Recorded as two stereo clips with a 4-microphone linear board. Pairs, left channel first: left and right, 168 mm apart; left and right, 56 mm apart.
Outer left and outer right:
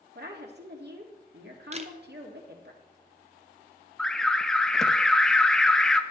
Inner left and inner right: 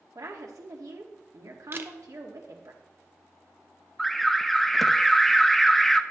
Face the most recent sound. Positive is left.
turn(degrees=5)  # may be behind; listen again after turning